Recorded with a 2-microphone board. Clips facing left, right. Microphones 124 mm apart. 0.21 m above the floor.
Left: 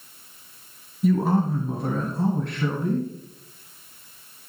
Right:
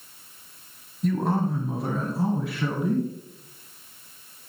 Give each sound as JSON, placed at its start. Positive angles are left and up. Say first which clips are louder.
{"t": 1.0, "sound": "a man speaking", "louder": "left 3 dB", "side_deg": 5, "distance_m": 1.4}